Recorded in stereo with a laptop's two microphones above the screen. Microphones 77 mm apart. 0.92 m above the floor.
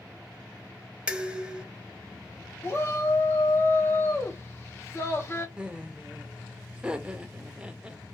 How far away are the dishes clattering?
About 0.7 m.